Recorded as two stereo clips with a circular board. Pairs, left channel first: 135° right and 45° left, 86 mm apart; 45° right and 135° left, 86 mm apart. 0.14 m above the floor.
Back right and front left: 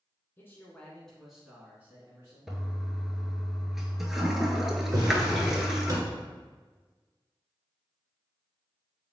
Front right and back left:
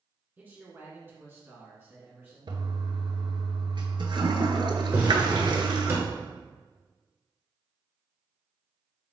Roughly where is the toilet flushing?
Behind left.